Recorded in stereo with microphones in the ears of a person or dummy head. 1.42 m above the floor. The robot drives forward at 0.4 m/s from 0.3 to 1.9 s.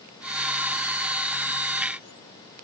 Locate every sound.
Only background noise.